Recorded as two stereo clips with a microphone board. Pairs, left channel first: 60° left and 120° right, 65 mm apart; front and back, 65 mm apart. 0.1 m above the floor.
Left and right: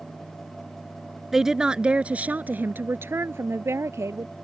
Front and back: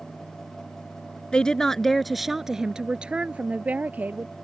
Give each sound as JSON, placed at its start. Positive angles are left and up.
{"t": 1.3, "sound": "a woman speaking", "azimuth_deg": -45}